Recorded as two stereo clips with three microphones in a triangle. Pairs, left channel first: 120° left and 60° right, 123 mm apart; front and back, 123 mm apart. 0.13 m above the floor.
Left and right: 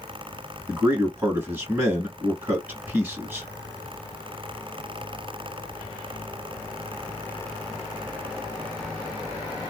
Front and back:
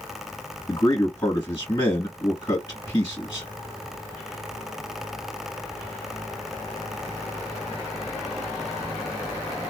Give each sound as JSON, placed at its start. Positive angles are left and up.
{"t": 0.7, "sound": "a man speaking", "azimuth_deg": 0, "distance_m": 1.4}